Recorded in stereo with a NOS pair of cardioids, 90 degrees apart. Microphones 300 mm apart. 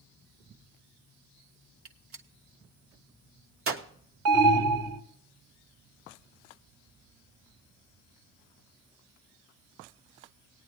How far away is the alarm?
About 2 m.